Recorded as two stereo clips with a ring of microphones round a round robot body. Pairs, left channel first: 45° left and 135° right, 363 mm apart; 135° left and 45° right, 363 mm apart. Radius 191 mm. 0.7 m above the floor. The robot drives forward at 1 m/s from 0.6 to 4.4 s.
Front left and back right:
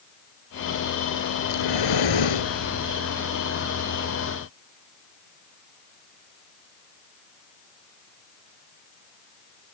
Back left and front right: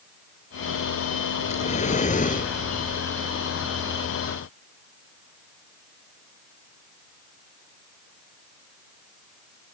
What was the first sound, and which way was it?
Breathing, 65° left.